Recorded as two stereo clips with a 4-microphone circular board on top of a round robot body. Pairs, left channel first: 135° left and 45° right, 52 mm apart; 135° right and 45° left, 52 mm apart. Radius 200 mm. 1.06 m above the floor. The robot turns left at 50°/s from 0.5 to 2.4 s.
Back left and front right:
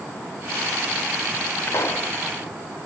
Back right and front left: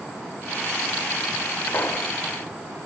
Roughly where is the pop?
Behind.